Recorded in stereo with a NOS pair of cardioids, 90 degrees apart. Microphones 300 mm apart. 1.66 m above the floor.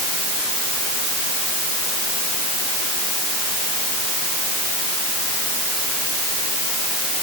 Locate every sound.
Only background noise.